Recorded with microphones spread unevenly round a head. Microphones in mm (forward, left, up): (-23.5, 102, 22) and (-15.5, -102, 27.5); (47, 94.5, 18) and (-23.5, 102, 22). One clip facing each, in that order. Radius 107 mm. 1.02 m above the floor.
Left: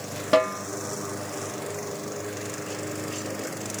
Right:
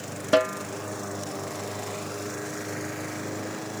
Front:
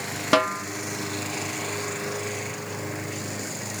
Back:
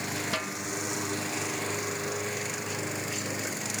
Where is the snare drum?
5° right.